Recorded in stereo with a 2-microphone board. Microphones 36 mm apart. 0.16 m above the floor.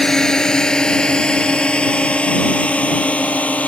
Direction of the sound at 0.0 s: 10° left (ahead or behind).